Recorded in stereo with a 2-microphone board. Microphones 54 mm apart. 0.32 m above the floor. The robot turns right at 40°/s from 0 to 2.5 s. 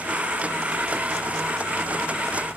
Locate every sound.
Only background noise.